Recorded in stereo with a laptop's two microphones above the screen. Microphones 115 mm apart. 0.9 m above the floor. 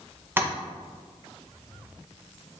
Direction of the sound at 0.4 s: 20° right (ahead or behind).